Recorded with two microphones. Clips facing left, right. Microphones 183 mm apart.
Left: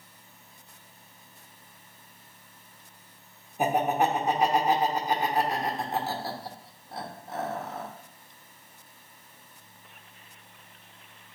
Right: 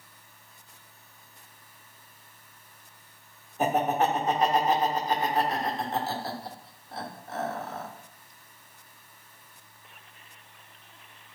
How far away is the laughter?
About 1.2 m.